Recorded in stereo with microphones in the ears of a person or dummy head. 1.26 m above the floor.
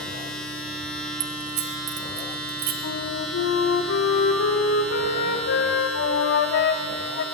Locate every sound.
0.0 s a machine running: centre (ahead or behind), 2.5 m
1.2 s keys jangling: 45° right (ahead or behind), 0.7 m
2.8 s a flute: 55° left (ahead or behind), 1.0 m